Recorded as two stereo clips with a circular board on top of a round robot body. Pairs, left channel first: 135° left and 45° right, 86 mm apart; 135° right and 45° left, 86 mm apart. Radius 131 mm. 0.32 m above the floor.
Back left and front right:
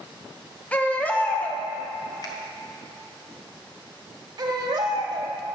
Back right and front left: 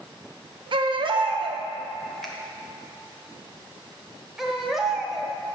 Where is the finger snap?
140° left, 1.5 m.